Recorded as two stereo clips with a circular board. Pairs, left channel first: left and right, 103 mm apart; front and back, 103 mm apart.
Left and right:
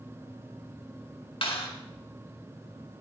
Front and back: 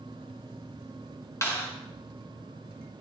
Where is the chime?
No chime in this recording.